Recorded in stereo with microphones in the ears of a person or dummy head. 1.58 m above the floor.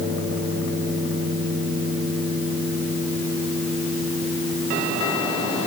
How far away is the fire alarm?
No fire alarm in this recording.